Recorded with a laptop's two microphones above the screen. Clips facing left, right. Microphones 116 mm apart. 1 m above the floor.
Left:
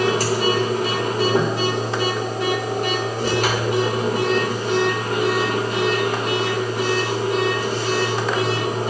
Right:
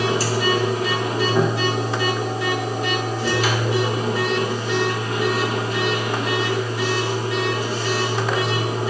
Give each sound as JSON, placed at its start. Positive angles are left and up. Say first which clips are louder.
{"t": 0.0, "sound": "a machine running", "louder": "left 2 dB", "side_deg": 55, "distance_m": 3.0}